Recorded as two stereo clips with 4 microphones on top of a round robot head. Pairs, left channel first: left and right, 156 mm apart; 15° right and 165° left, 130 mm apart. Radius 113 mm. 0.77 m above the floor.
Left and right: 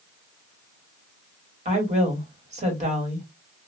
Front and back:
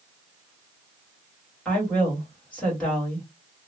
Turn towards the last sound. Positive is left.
turn(degrees=-90)